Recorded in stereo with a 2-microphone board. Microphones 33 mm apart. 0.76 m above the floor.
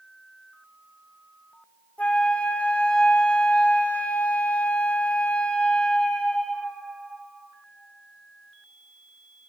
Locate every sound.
2.0 s a flute: 40° left (ahead or behind), 0.5 m